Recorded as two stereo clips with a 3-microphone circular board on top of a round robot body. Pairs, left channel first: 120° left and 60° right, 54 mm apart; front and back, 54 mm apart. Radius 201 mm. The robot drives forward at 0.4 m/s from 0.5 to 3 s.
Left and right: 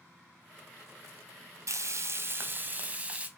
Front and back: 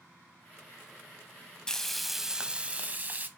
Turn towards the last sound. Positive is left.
turn(degrees=-125)